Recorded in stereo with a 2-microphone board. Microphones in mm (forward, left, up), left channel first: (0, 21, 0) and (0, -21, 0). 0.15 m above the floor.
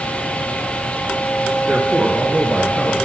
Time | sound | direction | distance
1.7 | a man speaking | 30° right (ahead or behind) | 1.5 m